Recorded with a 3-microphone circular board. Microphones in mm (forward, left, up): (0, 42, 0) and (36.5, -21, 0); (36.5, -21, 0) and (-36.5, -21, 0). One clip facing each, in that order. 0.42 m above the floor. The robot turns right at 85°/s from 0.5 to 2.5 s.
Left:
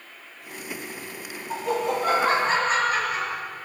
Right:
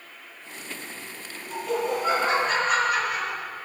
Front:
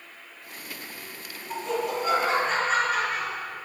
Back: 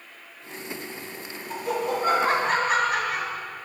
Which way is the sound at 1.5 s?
85° left.